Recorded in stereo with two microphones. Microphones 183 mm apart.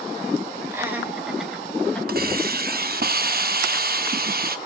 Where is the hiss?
55° right (ahead or behind), 0.6 m.